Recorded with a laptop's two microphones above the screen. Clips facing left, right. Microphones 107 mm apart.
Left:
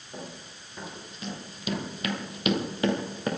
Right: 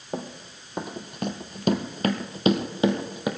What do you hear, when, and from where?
0.1 s running footsteps: 55° right (ahead or behind), 2 m; by 3.3 s 10° right (ahead or behind), 1.6 m